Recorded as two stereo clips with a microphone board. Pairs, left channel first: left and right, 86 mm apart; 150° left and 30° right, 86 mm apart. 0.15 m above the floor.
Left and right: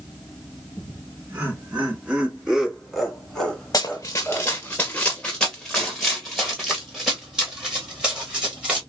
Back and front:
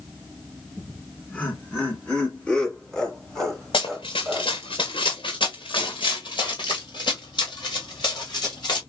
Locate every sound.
0.8 s laughter: 150° right, 2.5 m; by 4.5 s 55° left, 1.7 m
3.7 s running footsteps: 135° left, 0.9 m; by 8.8 s 170° right, 3.5 m